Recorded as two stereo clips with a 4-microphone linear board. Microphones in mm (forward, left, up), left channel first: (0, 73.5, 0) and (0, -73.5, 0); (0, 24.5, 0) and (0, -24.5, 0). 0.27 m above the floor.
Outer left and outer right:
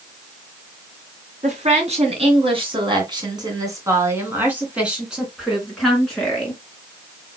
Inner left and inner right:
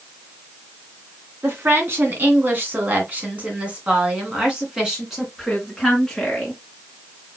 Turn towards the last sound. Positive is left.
turn(degrees=5)  # may be behind; listen again after turning